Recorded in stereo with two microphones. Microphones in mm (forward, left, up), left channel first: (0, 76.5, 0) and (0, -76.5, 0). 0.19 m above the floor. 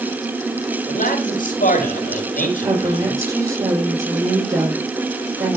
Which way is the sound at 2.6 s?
25° right (ahead or behind).